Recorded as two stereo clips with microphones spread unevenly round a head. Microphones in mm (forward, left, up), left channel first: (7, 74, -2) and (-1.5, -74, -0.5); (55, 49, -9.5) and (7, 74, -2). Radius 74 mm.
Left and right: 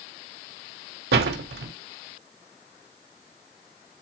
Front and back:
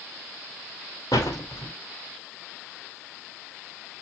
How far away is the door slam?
About 2.5 m.